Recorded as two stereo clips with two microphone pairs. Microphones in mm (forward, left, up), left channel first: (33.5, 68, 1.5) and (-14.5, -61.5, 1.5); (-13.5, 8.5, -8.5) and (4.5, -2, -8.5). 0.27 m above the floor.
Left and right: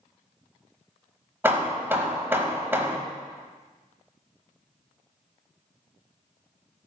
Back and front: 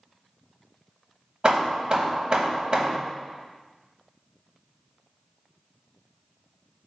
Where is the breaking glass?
I don't hear breaking glass.